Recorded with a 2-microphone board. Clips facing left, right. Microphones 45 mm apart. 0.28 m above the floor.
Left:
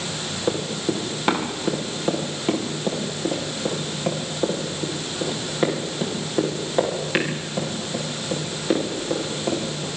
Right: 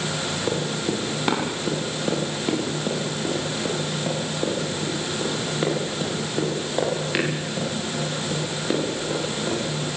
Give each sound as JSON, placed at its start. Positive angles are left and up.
{"t": 0.5, "sound": "running footsteps", "side_deg": 10, "distance_m": 7.0}